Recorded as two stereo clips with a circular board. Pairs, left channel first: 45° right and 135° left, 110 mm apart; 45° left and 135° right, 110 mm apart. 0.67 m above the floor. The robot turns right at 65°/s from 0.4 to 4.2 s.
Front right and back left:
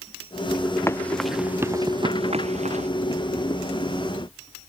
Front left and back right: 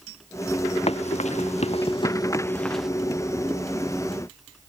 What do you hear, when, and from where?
0.9 s running footsteps: 20° left; by 2.9 s 140° left